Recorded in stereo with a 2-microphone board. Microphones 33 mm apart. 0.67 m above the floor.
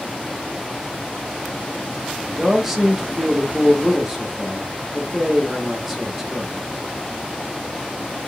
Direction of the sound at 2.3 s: 10° right (ahead or behind).